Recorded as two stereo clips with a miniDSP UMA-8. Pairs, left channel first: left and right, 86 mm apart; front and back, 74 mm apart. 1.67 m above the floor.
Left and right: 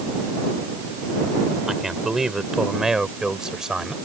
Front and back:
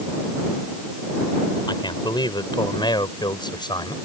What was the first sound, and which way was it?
A man speaking, 5° right.